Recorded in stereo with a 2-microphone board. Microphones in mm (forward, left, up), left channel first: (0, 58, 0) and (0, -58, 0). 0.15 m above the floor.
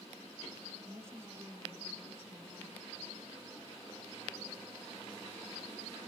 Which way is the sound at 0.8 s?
20° right (ahead or behind).